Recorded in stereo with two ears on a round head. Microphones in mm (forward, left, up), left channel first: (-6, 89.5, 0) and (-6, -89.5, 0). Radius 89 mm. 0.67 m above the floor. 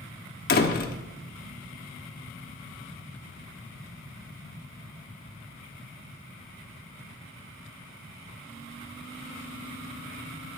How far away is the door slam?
About 1.2 m.